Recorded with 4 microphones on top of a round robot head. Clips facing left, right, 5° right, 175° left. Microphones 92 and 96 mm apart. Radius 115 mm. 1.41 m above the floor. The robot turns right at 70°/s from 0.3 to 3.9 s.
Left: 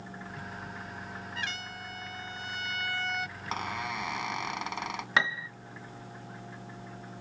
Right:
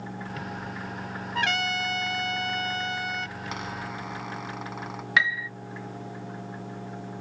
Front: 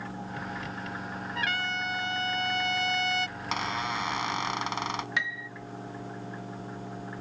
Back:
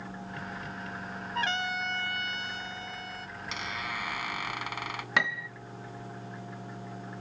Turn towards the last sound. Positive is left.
turn(degrees=145)